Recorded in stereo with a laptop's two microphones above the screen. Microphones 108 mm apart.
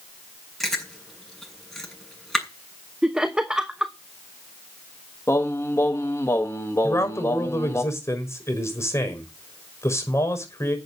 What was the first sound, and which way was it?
Chewing, centre (ahead or behind).